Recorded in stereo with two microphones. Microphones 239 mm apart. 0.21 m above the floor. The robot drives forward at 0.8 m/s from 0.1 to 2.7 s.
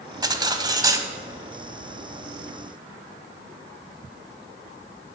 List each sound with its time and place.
0.2 s cutlery clinking: 15° right (ahead or behind), 0.6 m